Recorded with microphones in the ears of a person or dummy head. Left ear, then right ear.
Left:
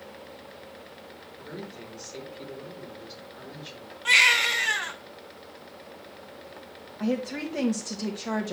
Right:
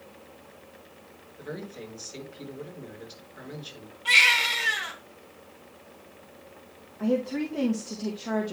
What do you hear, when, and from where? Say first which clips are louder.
1.4 s a man speaking: right 3 dB; centre (ahead or behind), 4.5 m
4.0 s a baby crying: even; 40° left (ahead or behind), 2.5 m
7.0 s a woman speaking: right 2 dB; 60° left (ahead or behind), 1.3 m